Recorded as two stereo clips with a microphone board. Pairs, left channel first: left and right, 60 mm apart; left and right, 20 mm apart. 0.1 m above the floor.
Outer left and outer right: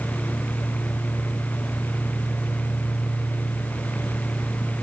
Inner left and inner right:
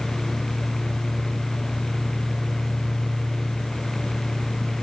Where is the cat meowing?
No cat meowing in this recording.